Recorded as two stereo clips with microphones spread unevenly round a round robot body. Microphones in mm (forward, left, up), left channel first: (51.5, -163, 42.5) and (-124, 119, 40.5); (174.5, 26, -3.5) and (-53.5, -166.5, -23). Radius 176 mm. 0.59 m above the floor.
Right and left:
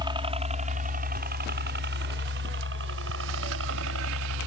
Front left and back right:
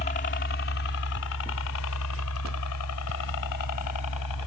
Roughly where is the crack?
I don't hear a crack.